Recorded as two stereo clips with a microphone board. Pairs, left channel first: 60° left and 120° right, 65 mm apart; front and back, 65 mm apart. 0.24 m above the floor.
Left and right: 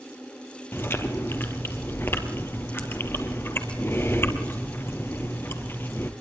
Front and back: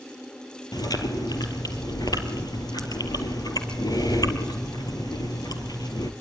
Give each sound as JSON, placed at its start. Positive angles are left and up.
{"t": 0.7, "sound": "chewing", "azimuth_deg": 5, "distance_m": 2.5}